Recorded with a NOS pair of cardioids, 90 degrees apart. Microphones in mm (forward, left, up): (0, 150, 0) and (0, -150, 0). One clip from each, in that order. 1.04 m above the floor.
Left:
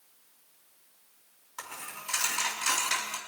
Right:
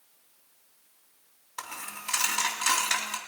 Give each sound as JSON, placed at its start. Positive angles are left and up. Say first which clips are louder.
{"t": 1.6, "sound": "a dropped coin", "louder": "right 3 dB", "azimuth_deg": -35, "distance_m": 3.0}